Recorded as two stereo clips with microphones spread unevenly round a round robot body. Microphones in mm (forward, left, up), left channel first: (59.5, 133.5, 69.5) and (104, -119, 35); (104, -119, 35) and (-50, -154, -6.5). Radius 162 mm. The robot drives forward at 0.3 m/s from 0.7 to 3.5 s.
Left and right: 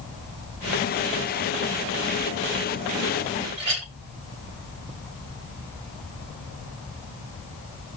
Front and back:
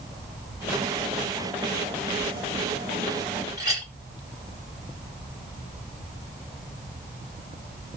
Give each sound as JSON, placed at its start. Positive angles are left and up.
{"t": 3.6, "sound": "a clink", "azimuth_deg": -105, "distance_m": 1.9}